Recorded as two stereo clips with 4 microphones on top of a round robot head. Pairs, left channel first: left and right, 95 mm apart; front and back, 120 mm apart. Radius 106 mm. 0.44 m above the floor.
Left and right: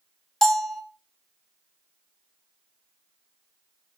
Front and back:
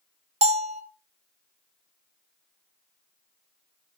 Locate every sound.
0.4 s a bell: 175° left, 1.4 m